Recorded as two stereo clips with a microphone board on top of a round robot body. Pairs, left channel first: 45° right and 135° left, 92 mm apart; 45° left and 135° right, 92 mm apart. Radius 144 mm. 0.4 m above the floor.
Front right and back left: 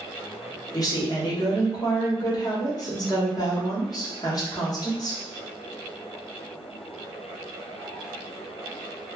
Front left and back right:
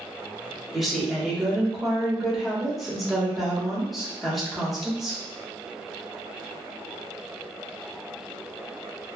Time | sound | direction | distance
0.7 | a woman speaking | 45° right | 1.3 m